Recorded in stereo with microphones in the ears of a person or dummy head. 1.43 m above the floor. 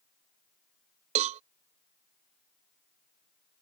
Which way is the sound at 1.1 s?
40° right (ahead or behind).